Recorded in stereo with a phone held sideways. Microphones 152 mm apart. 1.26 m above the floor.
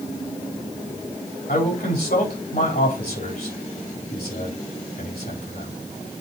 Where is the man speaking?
80° left, 3.5 m.